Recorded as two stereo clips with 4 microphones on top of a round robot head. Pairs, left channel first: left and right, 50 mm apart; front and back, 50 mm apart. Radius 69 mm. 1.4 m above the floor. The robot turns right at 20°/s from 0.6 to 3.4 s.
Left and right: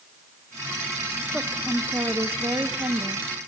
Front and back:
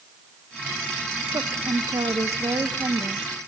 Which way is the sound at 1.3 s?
165° right.